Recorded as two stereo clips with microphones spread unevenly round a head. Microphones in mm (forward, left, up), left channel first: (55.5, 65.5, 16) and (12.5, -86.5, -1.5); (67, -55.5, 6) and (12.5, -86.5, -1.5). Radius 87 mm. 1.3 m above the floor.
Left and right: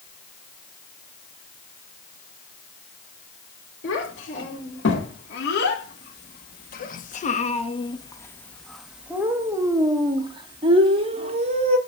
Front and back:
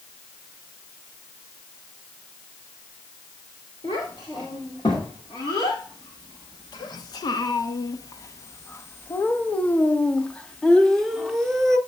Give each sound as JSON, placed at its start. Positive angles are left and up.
{"t": 3.8, "sound": "a child speaking", "azimuth_deg": 80, "distance_m": 3.0}